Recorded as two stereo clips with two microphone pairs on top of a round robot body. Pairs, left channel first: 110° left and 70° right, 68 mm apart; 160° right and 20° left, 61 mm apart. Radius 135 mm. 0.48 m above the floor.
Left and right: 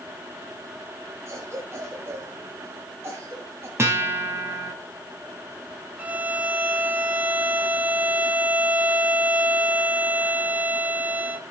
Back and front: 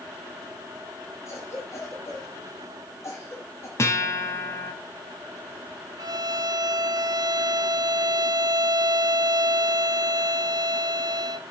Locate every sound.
1.3 s a cough: 120° right, 4.5 m
3.8 s a guitar: 120° right, 3.5 m
6.0 s a violin: straight ahead, 0.6 m